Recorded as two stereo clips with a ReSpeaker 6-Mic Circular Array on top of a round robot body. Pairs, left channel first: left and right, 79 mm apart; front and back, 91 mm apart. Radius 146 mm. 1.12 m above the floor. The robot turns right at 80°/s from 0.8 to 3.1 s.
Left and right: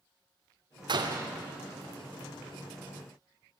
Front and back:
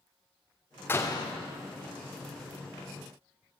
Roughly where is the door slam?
Right.